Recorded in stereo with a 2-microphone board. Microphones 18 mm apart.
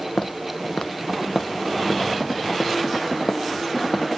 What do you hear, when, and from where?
0.2 s footsteps: 55° left (ahead or behind); by 4.2 s 50° left (ahead or behind)